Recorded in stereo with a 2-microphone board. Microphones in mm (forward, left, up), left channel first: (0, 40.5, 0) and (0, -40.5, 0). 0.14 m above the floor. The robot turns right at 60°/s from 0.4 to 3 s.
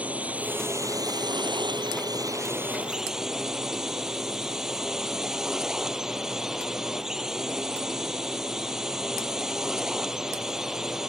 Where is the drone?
160° right; by 11.1 s 5° right.